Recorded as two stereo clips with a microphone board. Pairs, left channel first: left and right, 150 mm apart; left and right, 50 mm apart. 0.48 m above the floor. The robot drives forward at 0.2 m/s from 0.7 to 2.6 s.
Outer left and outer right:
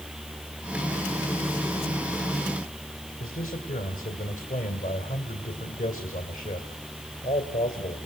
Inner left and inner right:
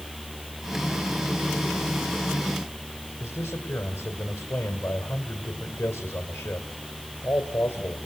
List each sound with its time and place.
3.2 s a man speaking: 65° left (ahead or behind), 2 m